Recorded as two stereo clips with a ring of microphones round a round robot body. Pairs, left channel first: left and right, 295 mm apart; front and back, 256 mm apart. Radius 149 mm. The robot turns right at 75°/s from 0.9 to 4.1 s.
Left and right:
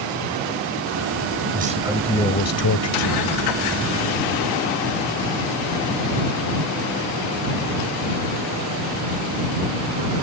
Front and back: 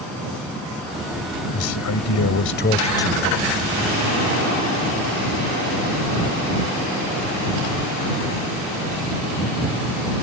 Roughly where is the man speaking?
Ahead right.